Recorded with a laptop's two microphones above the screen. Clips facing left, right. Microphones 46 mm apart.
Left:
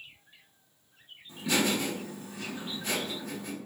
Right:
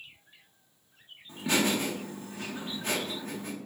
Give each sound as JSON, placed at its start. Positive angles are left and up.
{"t": 1.3, "sound": "laughter", "side_deg": -45, "distance_m": 1.4}